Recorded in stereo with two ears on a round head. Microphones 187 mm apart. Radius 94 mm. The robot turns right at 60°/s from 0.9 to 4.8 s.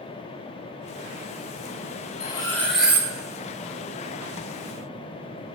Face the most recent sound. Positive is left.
turn(degrees=-55)